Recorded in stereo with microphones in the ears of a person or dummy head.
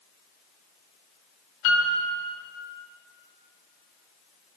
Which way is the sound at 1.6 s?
65° left (ahead or behind).